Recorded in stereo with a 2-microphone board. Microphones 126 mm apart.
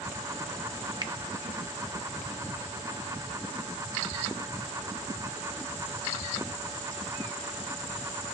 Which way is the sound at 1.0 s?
35° right (ahead or behind).